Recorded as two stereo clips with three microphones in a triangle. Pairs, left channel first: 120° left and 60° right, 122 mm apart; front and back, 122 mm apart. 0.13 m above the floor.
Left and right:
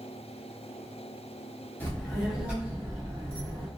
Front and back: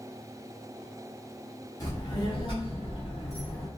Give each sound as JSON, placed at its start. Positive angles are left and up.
{"t": 1.8, "sound": "a child speaking", "azimuth_deg": 45, "distance_m": 1.4}